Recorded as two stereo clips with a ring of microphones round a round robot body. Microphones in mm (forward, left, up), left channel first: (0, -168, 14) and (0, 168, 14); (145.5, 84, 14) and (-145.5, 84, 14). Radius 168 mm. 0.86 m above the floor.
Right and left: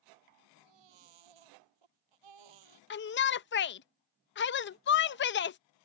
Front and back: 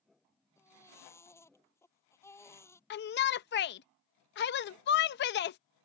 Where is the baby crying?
80° left.